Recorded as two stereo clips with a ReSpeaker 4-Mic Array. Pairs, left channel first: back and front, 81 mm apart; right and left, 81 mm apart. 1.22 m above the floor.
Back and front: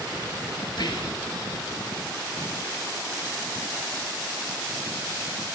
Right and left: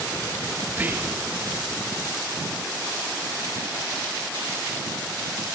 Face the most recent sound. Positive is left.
turn(degrees=155)